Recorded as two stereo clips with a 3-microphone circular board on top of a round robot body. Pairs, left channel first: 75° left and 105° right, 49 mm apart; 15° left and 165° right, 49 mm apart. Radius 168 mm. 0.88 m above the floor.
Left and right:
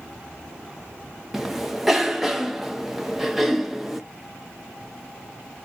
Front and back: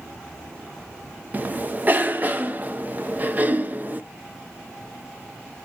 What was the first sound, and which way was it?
A cough, 175° left.